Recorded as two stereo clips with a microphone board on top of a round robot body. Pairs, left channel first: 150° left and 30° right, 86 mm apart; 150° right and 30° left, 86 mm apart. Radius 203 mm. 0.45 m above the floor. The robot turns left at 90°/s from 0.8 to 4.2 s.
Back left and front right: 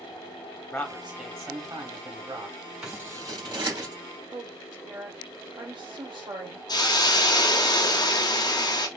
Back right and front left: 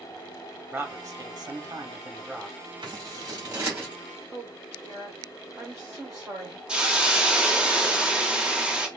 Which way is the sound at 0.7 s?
70° left.